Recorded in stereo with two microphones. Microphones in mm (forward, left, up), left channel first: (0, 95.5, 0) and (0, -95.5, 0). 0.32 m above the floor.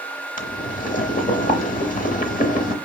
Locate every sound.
0.4 s boiling: 50° left (ahead or behind), 0.8 m